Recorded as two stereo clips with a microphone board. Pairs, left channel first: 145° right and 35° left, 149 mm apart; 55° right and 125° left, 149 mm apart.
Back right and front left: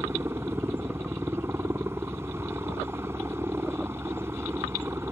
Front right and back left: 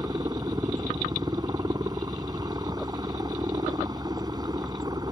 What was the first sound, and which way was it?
A helicopter, 90° left.